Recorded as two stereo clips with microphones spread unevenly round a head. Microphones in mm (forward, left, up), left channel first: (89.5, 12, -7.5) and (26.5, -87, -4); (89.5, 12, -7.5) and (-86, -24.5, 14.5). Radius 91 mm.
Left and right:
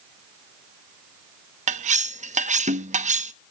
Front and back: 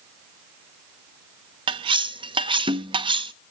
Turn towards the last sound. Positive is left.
turn(degrees=-105)